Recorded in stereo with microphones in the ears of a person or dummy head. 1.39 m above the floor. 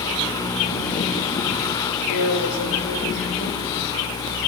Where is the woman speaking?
60° left (ahead or behind), 3 m.